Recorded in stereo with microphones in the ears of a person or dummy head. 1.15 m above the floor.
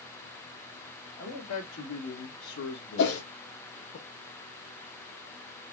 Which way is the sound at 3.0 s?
60° left (ahead or behind).